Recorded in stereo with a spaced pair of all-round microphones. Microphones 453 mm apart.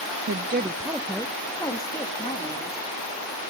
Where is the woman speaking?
35° right (ahead or behind), 0.5 m; by 2.8 s 15° left (ahead or behind), 2.5 m.